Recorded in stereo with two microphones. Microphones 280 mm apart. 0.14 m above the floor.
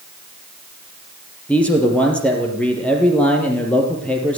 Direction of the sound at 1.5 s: 5° left (ahead or behind).